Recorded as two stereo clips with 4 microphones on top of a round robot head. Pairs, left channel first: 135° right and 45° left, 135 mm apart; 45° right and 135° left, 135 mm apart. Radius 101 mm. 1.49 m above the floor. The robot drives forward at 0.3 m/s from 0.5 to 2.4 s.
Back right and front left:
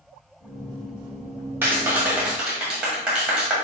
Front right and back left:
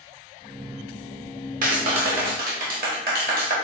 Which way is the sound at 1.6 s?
120° left.